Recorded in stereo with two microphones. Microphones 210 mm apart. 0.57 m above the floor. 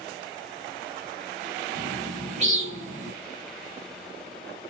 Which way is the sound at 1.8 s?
30° right (ahead or behind).